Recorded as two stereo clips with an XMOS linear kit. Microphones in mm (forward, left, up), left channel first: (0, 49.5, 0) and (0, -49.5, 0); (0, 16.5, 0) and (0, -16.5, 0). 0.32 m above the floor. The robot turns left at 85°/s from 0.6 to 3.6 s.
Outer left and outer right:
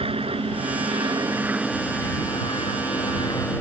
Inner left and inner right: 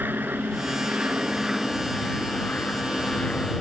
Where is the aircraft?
70° right (ahead or behind); by 3.6 s 20° left (ahead or behind).